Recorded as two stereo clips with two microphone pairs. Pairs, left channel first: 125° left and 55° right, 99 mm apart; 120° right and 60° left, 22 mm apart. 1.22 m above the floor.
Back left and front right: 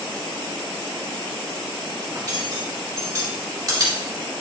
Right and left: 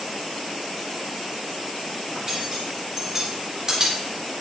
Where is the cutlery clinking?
Straight ahead, 3 m.